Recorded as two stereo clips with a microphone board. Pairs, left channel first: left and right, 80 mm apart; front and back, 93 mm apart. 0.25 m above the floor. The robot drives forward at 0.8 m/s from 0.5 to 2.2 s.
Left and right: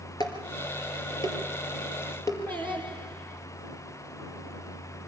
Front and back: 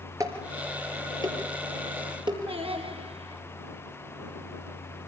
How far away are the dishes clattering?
About 3 m.